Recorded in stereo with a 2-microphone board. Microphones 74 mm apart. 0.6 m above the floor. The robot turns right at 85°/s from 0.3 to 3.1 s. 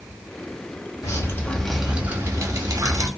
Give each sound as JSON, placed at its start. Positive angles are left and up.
{"t": 1.0, "sound": "dripping", "azimuth_deg": 115, "distance_m": 0.8}